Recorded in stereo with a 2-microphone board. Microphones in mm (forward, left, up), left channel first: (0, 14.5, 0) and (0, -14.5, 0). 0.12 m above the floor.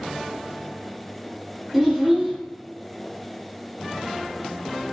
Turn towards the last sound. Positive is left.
turn(degrees=-5)  # may be behind; listen again after turning